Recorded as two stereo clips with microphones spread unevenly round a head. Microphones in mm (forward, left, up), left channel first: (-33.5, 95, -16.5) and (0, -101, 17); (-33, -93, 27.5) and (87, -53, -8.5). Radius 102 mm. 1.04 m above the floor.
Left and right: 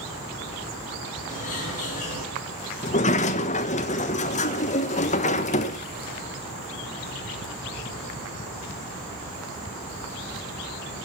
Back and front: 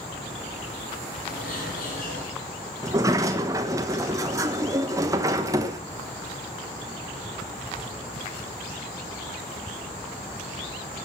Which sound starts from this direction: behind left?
A bird, at 1.3 s.